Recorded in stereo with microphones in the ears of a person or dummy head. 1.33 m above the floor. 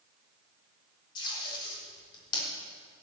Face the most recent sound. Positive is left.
turn(degrees=25)  # may be behind; listen again after turning